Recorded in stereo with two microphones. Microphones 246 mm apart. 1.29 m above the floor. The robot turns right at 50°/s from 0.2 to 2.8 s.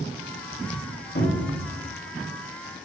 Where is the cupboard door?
55° left (ahead or behind), 1.9 m; by 1.7 s 80° left, 1.9 m.